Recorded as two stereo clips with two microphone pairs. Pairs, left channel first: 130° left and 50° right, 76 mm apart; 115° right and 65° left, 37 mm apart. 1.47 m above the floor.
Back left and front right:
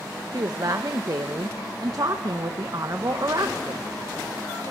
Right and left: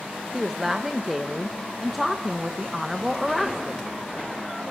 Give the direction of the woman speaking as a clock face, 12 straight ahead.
1 o'clock.